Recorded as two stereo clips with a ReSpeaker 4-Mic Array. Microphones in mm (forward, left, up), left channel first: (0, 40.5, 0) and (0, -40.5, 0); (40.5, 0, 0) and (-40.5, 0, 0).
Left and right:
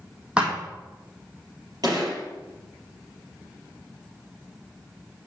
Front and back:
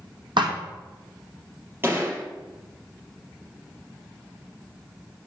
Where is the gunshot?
120° right, 4 m.